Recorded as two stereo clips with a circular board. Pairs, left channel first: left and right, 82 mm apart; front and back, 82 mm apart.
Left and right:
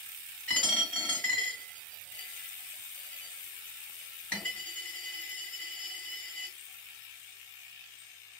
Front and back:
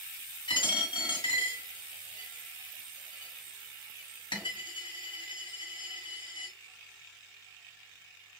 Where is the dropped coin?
10° left, 1.8 m.